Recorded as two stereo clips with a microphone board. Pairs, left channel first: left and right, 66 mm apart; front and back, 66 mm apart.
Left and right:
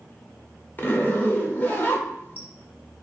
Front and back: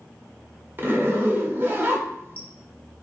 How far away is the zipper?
About 0.6 m.